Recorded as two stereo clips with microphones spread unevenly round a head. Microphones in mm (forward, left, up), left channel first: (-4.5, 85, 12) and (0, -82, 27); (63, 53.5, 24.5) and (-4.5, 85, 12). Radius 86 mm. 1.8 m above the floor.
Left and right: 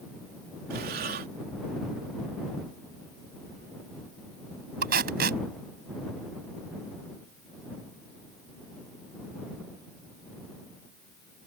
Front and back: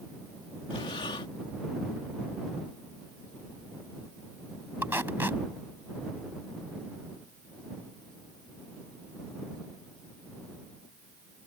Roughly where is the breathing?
Ahead right.